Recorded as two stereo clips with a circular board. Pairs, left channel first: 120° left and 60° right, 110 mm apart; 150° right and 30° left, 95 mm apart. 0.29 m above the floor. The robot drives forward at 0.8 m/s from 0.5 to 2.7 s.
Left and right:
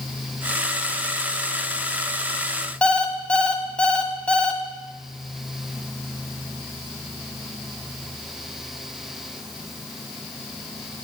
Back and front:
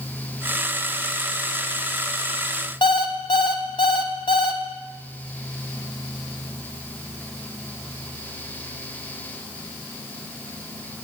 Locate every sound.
2.8 s an alarm clock: 160° right, 0.9 m